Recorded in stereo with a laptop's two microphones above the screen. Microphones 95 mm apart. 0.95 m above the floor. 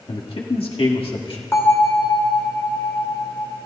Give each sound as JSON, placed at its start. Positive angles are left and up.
{"t": 0.1, "sound": "a man speaking", "side_deg": 75, "distance_m": 1.7}
{"t": 1.5, "sound": "a bell", "side_deg": 25, "distance_m": 1.2}